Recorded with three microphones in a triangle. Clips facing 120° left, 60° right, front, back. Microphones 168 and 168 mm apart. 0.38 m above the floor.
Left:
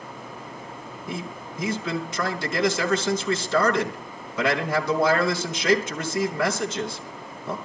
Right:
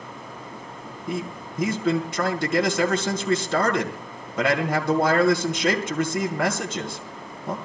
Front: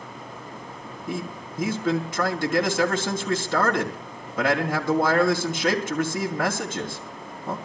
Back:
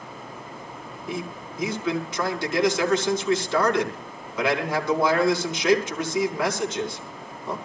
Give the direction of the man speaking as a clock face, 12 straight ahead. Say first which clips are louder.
Right 4 dB, front 1 dB; 1 o'clock.